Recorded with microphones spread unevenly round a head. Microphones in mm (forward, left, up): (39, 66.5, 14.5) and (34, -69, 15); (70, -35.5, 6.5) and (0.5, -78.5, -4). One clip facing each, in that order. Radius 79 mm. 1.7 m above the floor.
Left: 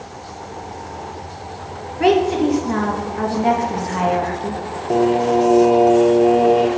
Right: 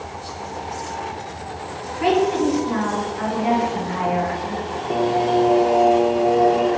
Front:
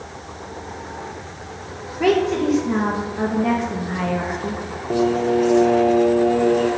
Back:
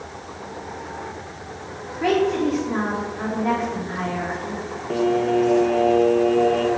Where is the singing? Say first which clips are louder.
Left 3 dB, front 1 dB; 65° left, 0.6 m.